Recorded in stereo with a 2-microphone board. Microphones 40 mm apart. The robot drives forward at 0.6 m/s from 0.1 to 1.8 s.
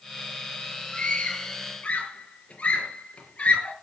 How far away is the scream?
About 5 m.